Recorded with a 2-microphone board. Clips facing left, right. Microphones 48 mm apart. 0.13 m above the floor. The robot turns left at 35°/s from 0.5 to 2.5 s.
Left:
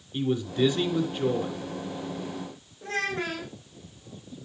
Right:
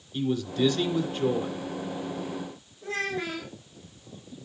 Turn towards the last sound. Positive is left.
turn(degrees=55)  # may be behind; listen again after turning